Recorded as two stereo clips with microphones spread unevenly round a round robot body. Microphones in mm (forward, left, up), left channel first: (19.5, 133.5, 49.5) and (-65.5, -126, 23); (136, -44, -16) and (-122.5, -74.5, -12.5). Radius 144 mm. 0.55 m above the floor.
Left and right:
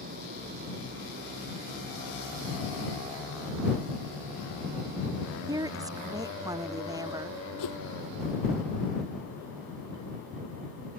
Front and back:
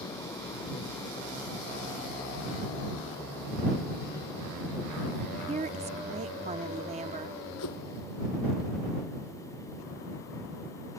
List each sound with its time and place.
5.5 s a woman speaking: 150° right
7.6 s a whoosh: 50° left